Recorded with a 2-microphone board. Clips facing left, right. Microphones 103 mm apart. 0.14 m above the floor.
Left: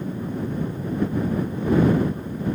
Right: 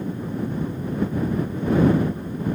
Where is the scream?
I don't hear a scream.